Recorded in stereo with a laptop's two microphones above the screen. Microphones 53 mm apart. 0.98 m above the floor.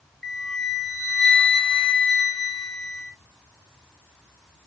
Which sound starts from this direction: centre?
A flute, at 0.2 s.